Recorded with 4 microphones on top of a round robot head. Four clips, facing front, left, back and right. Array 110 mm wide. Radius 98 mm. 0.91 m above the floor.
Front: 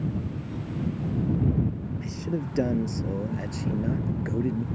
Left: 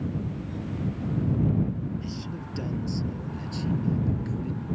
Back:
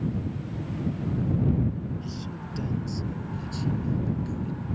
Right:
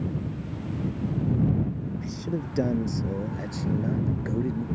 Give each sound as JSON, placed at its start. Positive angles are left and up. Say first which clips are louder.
{"t": 2.0, "sound": "a man speaking", "louder": "right 4 dB, front 5 dB", "azimuth_deg": -40}